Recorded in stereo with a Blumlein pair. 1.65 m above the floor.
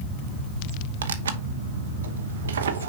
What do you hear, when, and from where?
1.0 s tearing paper: 65° right, 0.9 m